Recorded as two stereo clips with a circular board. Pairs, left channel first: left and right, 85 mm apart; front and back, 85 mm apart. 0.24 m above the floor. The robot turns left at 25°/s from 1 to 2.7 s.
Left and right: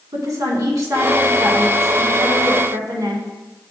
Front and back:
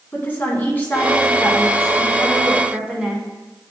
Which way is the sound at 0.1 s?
60° right.